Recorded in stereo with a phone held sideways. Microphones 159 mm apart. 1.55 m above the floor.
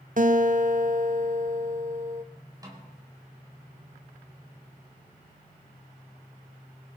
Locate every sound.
0.2 s a guitar: 55° right (ahead or behind), 0.9 m
2.6 s a snare drum: 25° right (ahead or behind), 3.5 m